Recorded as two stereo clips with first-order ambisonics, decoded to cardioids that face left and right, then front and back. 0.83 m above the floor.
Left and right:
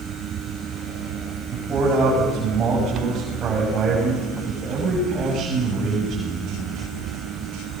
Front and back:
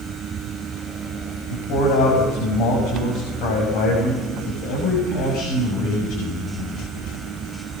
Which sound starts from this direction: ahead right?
A man speaking, at 1.5 s.